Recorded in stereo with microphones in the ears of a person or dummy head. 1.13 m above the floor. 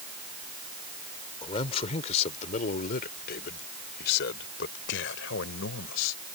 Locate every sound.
1.4 s a man speaking: 35° left (ahead or behind); by 6.2 s 90° left